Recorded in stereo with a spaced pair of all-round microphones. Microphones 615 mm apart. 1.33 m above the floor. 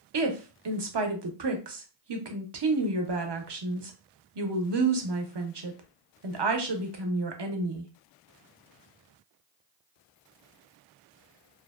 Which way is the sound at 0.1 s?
45° right (ahead or behind).